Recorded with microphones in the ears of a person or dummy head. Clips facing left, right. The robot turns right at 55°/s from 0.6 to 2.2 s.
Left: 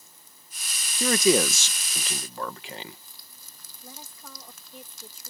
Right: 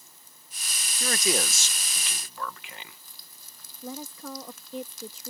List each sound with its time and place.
1.0 s a man speaking: 80° left; by 3.0 s 145° left
3.8 s a woman speaking: 70° right (ahead or behind)